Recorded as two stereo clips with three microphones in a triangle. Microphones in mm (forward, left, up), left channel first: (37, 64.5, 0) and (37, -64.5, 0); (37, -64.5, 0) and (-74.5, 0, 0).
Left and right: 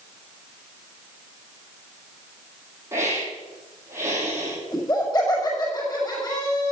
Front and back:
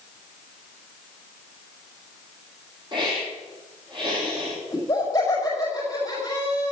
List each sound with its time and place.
2.9 s a hiss: 160° right, 7.5 m
4.7 s laughter: 30° left, 5.5 m